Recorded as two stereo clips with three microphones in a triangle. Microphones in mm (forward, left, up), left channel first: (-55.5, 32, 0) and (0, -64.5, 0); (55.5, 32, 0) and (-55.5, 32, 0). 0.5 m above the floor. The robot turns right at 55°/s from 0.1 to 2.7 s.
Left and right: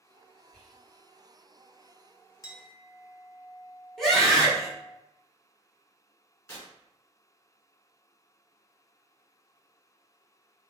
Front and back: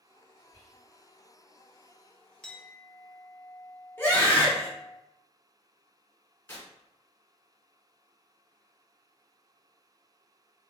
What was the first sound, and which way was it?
Whispering, 40° left.